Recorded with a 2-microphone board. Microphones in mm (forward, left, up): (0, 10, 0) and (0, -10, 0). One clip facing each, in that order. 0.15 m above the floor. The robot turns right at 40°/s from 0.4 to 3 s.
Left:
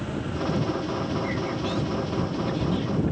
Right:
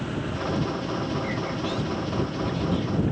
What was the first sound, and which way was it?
Only background noise.